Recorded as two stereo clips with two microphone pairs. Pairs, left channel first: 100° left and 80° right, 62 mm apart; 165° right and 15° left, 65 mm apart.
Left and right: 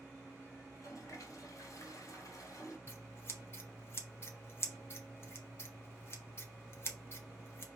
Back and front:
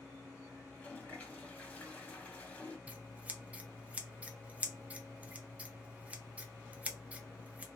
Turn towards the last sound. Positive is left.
turn(degrees=85)